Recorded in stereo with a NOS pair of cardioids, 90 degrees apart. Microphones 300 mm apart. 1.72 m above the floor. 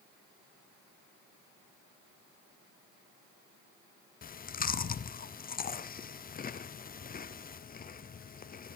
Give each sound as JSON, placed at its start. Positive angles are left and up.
{"t": 4.2, "sound": "chewing", "azimuth_deg": 30, "distance_m": 0.7}